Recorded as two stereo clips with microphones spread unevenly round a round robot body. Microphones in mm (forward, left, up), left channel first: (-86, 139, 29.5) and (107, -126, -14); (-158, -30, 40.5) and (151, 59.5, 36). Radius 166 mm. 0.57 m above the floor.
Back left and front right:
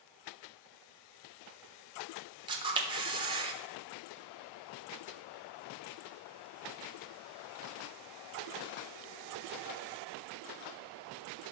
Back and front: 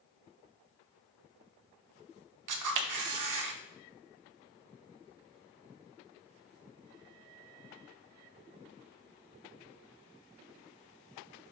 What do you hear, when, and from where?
2.5 s a camera shutter: 15° left, 1.4 m